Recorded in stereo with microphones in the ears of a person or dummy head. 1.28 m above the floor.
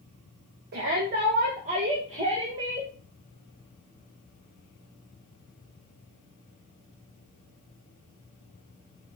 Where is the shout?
50° right (ahead or behind), 1.9 m; by 2.9 s 15° right (ahead or behind), 1.9 m.